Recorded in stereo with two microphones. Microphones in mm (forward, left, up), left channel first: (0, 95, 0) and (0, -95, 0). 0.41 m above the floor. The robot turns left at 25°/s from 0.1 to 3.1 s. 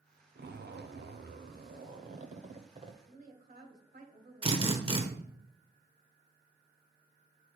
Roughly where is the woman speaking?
Right.